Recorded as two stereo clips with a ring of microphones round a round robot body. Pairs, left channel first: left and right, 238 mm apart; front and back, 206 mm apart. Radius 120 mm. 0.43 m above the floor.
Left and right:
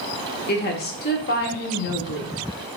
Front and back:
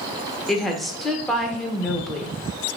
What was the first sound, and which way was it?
A woman speaking, 90° left.